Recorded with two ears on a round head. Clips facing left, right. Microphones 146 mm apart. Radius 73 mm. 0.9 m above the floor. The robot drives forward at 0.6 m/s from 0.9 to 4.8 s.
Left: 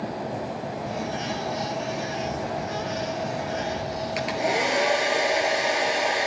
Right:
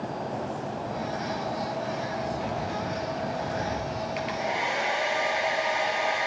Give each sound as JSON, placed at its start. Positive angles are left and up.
{"t": 2.4, "sound": "keys jangling", "side_deg": -65, "distance_m": 6.0}
{"t": 4.2, "sound": "a hair dryer", "side_deg": 60, "distance_m": 3.0}